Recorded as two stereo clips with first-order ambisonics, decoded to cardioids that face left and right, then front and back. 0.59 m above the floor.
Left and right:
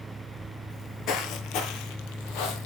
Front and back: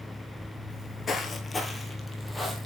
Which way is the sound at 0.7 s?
45° left.